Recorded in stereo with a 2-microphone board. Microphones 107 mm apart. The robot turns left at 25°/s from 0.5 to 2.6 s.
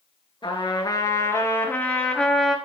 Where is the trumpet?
50° left, 2.5 m; by 2.5 s straight ahead, 2.5 m.